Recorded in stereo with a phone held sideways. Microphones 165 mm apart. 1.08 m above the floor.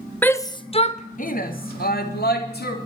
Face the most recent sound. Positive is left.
turn(degrees=80)